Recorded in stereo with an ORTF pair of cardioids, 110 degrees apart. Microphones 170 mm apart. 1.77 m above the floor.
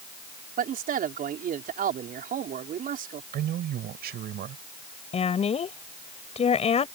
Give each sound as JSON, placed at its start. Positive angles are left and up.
{"t": 0.6, "sound": "a man speaking", "azimuth_deg": -55}
{"t": 3.3, "sound": "a man speaking", "azimuth_deg": -65}
{"t": 5.1, "sound": "a woman speaking", "azimuth_deg": 35}